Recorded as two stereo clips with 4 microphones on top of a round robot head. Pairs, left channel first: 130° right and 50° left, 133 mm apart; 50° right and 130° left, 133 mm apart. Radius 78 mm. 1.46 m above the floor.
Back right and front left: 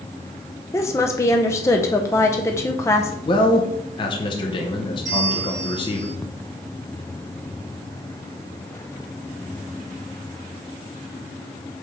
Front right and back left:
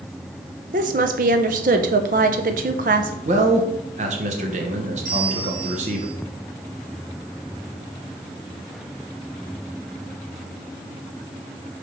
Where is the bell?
115° left, 2.0 m.